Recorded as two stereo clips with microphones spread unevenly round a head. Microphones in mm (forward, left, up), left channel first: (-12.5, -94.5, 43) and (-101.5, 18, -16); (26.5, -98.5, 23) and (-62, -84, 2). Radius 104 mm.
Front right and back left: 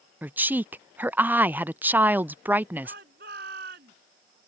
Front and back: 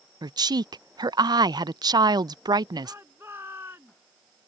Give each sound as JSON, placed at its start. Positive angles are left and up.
{"t": 0.2, "sound": "a woman speaking", "azimuth_deg": -165}
{"t": 2.8, "sound": "a shout", "azimuth_deg": 90}